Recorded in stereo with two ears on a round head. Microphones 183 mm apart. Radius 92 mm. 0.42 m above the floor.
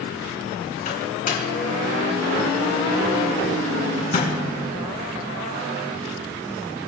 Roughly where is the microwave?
Left.